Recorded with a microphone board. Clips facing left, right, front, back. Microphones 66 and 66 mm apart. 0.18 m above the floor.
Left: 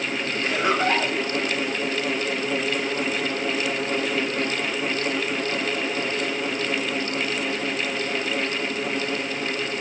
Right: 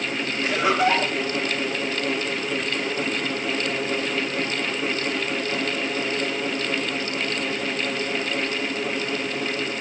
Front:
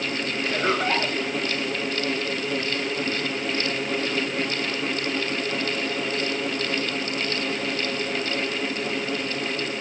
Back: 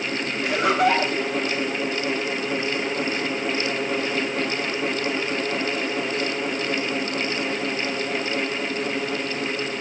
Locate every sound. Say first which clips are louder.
0.4 s laughter: right 2 dB, back 5 dB; 160° right, 8.5 m